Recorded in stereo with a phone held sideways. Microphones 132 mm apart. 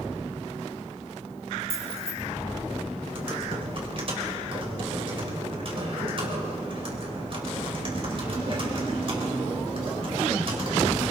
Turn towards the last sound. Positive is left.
turn(degrees=-45)  # may be behind; listen again after turning